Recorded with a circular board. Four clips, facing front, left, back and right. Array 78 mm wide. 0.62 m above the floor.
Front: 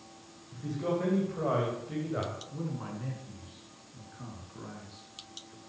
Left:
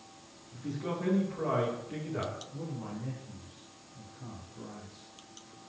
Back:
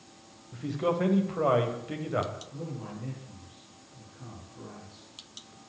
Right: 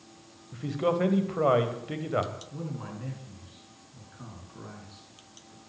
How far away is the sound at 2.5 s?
About 8 m.